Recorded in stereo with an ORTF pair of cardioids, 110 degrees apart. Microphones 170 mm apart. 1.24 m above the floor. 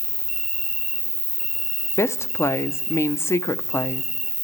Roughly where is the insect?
Ahead.